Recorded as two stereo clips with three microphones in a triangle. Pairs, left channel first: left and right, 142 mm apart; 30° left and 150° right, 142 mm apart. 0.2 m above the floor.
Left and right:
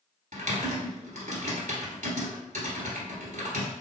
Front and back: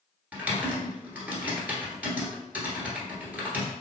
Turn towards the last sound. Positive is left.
turn(degrees=-70)